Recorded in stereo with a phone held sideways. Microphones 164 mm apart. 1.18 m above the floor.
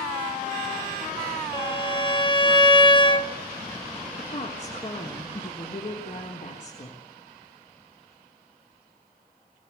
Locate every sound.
1.5 s a violin: 30° left (ahead or behind), 0.9 m
4.2 s a woman speaking: 50° left (ahead or behind), 4 m